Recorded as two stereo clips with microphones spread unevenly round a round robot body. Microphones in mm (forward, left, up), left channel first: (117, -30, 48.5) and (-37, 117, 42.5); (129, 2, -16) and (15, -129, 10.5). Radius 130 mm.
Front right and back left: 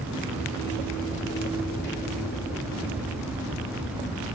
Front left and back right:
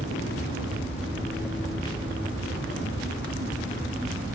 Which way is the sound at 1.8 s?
10° right.